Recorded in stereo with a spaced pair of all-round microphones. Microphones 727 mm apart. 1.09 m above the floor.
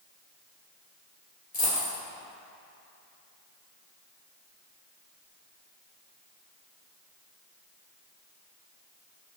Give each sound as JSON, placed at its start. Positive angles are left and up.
{"t": 1.5, "sound": "a dropped coin", "side_deg": 55, "distance_m": 2.5}